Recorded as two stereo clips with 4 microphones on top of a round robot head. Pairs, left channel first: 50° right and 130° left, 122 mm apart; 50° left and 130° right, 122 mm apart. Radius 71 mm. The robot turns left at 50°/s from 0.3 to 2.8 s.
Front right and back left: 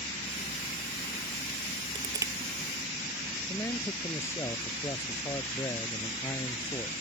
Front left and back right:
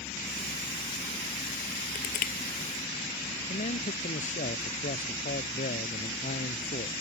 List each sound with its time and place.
1.9 s crushing: 80° left; by 2.3 s 60° left
3.5 s a man speaking: 20° left